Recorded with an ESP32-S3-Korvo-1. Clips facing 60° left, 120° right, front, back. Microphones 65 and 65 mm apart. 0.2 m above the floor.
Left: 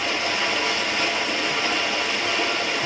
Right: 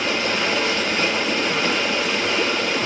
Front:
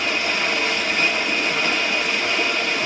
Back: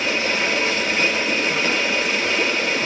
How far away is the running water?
About 3 m.